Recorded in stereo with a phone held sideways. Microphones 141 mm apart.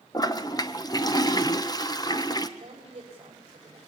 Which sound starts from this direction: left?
A toilet flushing, at 0.1 s.